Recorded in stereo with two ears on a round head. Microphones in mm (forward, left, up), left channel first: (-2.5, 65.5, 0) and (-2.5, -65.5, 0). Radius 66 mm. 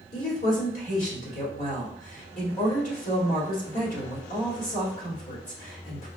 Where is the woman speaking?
55° left (ahead or behind), 1.8 m.